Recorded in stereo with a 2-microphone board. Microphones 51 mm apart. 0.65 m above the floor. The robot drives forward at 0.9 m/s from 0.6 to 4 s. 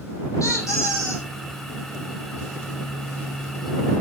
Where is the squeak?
75° left (ahead or behind), 10 m; by 1.3 s 80° left, 9.5 m.